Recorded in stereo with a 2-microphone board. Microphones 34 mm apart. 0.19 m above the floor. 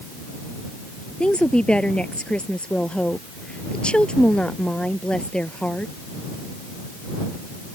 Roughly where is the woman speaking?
Left.